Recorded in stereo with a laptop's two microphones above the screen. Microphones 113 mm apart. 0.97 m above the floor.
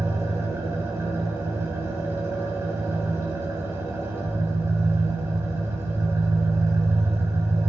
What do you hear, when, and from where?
0.0 s an engine running: 20° right (ahead or behind), 1.5 m